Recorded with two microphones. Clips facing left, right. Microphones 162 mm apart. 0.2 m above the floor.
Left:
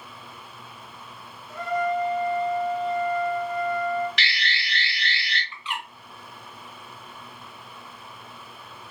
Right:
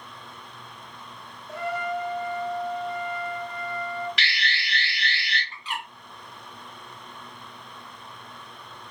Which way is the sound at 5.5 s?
45° right (ahead or behind).